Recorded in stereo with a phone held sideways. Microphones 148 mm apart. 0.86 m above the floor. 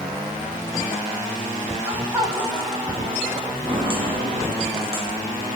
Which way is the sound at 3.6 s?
35° right (ahead or behind).